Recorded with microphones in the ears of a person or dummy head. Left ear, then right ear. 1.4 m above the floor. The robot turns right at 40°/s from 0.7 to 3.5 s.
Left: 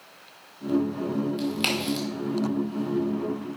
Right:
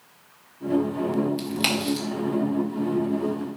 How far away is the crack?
About 1.8 m.